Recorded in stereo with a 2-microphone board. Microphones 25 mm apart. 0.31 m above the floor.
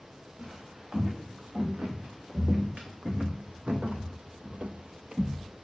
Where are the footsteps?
30° right (ahead or behind), 3 m; by 5.7 s 20° right (ahead or behind), 0.7 m.